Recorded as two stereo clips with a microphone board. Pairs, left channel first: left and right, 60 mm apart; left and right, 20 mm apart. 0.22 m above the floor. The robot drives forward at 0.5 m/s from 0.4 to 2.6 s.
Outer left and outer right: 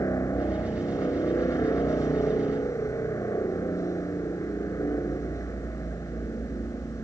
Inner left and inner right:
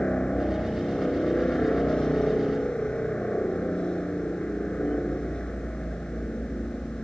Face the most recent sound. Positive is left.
turn(degrees=60)  # may be behind; listen again after turning